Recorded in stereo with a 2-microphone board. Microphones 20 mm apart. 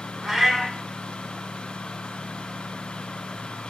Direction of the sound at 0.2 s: 15° right (ahead or behind).